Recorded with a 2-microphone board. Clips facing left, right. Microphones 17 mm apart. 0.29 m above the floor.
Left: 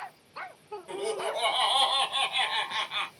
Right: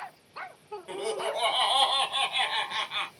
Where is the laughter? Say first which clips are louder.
Even; 15° right (ahead or behind), 1.1 m; by 3.1 s 5° left (ahead or behind), 2.0 m.